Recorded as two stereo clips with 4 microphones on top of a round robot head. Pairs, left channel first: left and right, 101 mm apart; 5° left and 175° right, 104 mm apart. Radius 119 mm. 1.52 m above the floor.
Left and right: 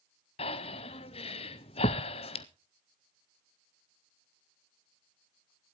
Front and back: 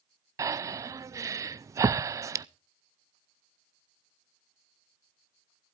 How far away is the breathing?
About 0.5 m.